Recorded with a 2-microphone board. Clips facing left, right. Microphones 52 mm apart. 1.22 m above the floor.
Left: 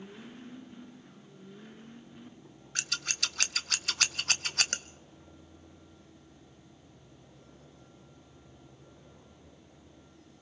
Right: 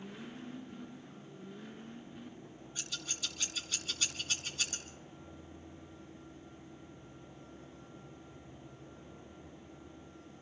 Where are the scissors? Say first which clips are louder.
Left 9 dB; 75° left (ahead or behind), 0.7 m.